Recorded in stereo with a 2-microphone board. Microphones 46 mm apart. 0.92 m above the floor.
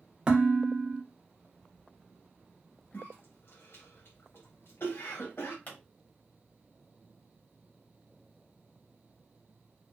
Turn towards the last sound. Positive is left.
turn(degrees=40)  # may be behind; listen again after turning